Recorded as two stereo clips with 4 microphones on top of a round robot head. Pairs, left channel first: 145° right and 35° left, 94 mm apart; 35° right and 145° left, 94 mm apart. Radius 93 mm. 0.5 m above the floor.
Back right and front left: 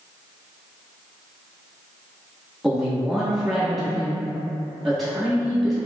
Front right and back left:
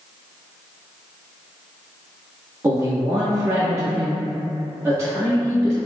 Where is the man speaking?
125° left, 1.2 m.